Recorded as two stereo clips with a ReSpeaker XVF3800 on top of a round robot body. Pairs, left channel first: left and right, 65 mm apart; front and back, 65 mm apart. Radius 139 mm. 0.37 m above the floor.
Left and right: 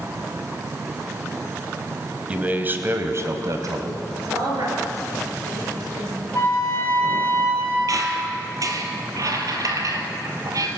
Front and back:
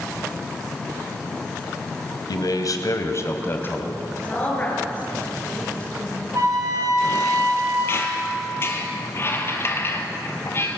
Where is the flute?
145° left, 4 m.